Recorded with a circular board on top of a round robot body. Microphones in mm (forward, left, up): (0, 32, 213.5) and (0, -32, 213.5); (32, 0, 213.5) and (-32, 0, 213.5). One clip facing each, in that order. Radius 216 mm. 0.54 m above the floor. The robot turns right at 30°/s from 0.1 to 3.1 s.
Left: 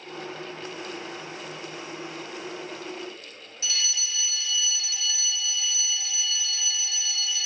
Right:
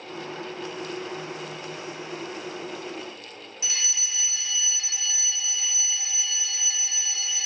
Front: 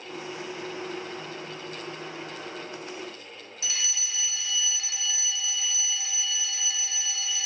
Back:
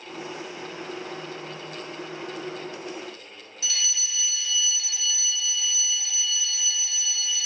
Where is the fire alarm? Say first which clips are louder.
Left 2 dB, back 2 dB; 50° right, 2 m.